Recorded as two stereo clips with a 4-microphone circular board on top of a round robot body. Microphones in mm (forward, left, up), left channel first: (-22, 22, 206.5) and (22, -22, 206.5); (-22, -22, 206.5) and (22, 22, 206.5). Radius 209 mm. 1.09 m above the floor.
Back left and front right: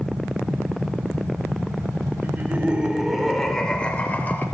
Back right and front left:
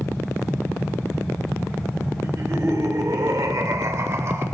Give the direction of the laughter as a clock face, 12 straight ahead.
12 o'clock.